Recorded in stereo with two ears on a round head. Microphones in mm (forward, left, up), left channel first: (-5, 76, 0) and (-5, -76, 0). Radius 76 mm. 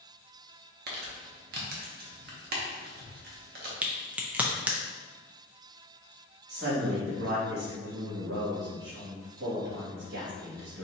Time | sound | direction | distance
0.9 | crumpling | 60° right (ahead or behind) | 1.0 m
3.8 | a crack | 10° right (ahead or behind) | 0.6 m
6.5 | a man speaking | 65° right (ahead or behind) | 1.7 m